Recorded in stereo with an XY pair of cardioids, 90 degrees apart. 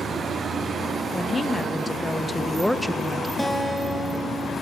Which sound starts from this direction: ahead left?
A woman speaking, at 1.1 s.